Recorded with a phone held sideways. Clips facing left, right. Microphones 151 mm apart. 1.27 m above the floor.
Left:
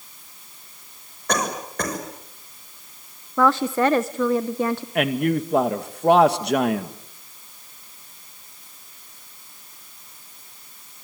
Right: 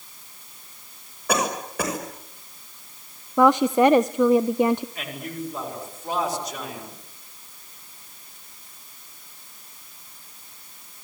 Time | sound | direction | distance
1.3 | a cough | 5° right (ahead or behind) | 6 m
3.4 | a woman speaking | 15° right (ahead or behind) | 0.6 m
5.0 | a man speaking | 70° left (ahead or behind) | 1.9 m